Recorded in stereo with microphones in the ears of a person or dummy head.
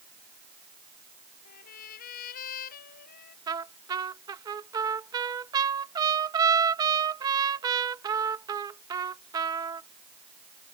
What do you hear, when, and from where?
1.4 s a trumpet: 50° left (ahead or behind)
3.5 s a trumpet: 20° right (ahead or behind)